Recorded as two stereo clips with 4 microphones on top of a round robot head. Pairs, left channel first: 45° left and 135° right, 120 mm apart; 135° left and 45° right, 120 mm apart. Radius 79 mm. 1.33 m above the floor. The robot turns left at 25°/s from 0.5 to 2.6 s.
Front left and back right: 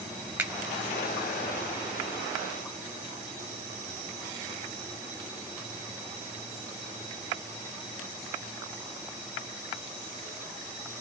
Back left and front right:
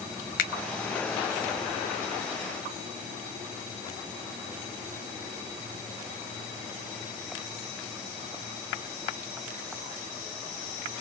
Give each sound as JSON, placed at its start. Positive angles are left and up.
{"t": 0.4, "sound": "a finger snap", "azimuth_deg": 145, "distance_m": 0.5}